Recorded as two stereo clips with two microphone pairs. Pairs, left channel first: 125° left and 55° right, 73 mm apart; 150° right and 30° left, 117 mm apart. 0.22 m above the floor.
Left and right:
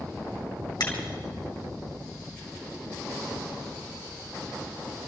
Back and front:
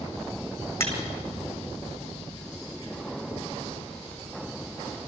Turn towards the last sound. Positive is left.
turn(degrees=140)